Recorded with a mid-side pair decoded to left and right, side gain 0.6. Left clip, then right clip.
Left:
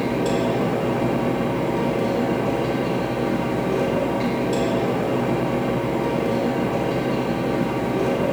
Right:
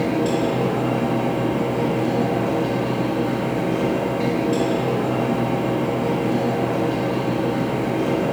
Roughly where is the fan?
Ahead.